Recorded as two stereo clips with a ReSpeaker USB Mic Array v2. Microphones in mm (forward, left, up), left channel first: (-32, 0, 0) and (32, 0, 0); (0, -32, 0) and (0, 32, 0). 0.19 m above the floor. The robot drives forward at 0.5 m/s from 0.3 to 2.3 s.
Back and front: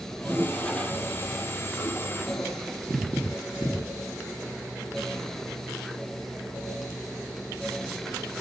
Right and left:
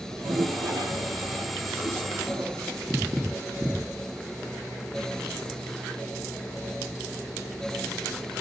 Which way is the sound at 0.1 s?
90° left.